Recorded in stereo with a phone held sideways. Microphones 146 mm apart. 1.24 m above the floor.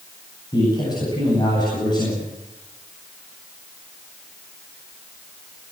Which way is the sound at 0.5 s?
30° left (ahead or behind).